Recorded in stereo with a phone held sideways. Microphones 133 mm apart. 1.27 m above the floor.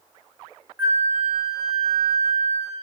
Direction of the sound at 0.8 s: 15° right (ahead or behind).